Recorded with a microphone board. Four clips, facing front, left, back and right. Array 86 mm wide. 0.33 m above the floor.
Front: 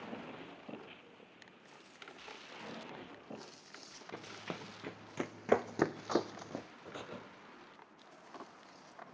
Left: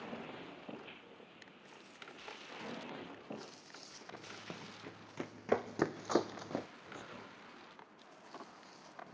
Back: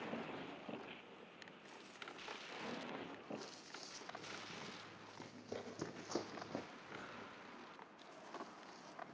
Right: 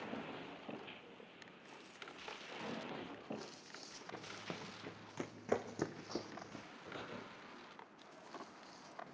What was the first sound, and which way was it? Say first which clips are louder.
Running footsteps: right 1 dB, front 9 dB; 10° right.